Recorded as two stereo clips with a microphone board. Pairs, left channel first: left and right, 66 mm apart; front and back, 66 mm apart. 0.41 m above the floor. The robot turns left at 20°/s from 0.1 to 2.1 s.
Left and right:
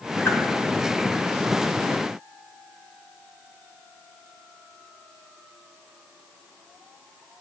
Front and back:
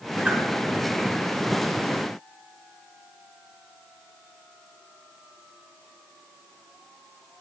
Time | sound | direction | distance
0.2 | a whoosh | 120° left | 1.2 m